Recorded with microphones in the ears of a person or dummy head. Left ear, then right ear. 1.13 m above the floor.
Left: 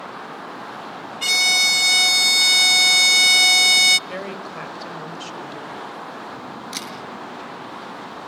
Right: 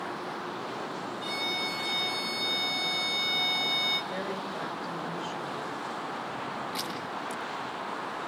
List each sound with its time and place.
1.2 s a violin: 60° left (ahead or behind), 0.5 m
4.1 s a woman speaking: 70° left (ahead or behind), 5 m
6.7 s a camera shutter: 85° left, 7.5 m